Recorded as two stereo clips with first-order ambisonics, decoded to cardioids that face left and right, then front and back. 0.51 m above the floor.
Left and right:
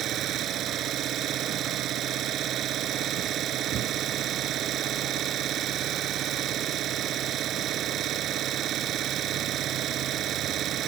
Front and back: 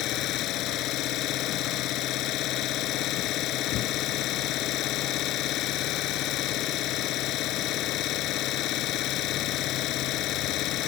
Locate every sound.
0.0 s an engine running: 40° right